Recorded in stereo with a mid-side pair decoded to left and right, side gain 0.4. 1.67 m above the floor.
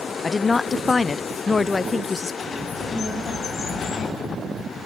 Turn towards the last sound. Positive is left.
turn(degrees=60)